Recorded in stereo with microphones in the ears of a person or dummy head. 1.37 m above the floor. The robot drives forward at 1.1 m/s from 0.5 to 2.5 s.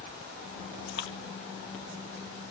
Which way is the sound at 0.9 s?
70° left (ahead or behind).